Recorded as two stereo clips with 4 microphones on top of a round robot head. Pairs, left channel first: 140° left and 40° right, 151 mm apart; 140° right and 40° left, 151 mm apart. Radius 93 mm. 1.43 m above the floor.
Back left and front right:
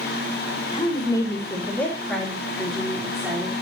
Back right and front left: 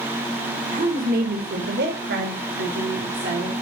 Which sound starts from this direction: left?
A woman speaking, at 0.7 s.